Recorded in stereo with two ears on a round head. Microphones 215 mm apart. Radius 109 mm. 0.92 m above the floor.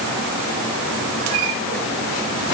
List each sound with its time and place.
Only background noise.